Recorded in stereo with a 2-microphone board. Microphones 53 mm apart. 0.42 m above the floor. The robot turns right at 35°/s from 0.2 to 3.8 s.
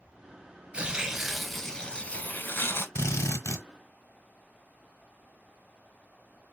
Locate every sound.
0.7 s tearing paper: 25° right, 0.7 m; by 2.9 s 50° left, 0.7 m
3.0 s a drill: 55° left (ahead or behind), 0.8 m; by 3.7 s 65° left (ahead or behind), 0.8 m